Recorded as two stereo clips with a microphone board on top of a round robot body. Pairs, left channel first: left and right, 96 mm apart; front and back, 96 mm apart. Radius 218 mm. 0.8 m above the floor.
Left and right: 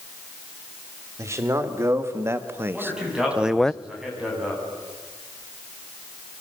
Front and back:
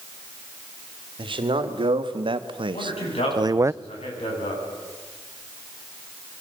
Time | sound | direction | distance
1.2 | a man speaking | 150° right | 3 m
2.7 | a man speaking | 5° right | 10 m